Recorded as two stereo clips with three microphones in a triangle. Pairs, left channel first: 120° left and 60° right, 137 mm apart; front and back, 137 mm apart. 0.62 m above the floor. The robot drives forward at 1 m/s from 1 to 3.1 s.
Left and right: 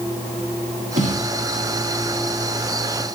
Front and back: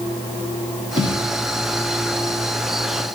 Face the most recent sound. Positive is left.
turn(degrees=-130)